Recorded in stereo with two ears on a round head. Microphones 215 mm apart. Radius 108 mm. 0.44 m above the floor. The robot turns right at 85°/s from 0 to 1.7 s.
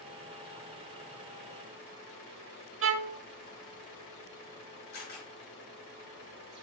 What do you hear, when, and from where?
2.8 s a violin: 60° right (ahead or behind), 1.0 m
4.9 s a camera shutter: 50° left (ahead or behind), 6 m